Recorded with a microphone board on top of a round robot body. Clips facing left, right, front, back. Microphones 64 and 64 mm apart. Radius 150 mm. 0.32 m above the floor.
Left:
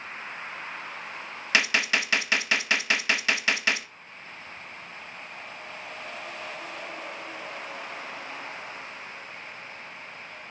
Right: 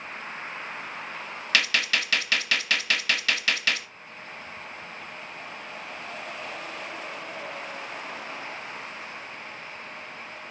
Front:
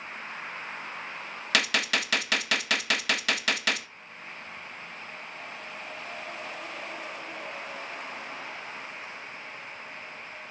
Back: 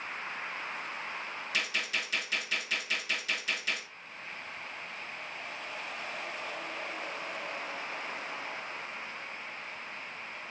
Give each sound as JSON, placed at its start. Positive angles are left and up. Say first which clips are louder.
{"t": 1.5, "sound": "a gunshot", "louder": "left 1 dB, front 8 dB", "azimuth_deg": 20, "distance_m": 0.6}